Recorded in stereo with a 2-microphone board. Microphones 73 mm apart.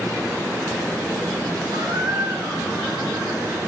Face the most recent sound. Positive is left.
turn(degrees=-70)  # may be behind; listen again after turning